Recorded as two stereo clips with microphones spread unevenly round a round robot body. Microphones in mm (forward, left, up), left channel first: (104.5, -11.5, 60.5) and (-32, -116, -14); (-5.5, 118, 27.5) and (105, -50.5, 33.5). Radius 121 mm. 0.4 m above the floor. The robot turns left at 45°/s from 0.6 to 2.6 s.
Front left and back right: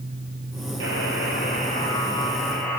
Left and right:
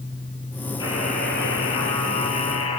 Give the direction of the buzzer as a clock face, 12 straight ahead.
5 o'clock.